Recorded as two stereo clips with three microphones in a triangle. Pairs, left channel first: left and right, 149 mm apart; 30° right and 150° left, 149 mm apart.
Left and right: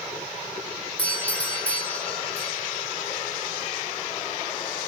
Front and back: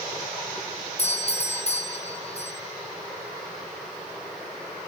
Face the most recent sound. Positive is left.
turn(degrees=10)